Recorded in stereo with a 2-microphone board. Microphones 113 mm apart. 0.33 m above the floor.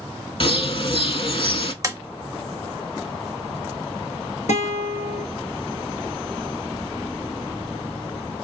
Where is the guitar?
90° left, 1.5 m.